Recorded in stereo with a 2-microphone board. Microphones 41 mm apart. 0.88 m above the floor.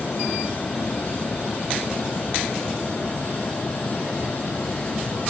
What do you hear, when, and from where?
Only background noise.